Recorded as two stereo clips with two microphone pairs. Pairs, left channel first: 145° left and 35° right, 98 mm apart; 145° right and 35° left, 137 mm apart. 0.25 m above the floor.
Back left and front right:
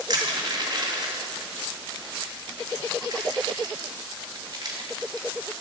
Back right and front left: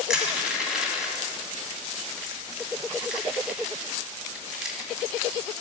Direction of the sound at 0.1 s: 45° right.